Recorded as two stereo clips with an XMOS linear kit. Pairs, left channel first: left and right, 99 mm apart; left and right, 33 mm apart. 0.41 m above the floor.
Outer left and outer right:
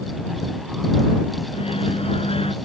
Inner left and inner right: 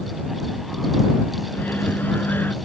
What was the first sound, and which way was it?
A microwave, 70° left (ahead or behind).